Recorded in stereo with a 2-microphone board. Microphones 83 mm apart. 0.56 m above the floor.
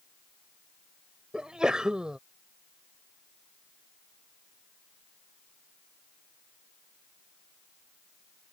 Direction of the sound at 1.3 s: 10° right (ahead or behind).